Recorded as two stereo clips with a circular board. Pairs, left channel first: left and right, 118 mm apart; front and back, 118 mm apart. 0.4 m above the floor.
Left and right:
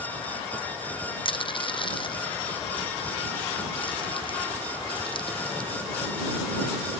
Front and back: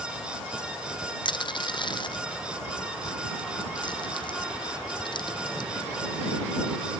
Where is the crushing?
45° left.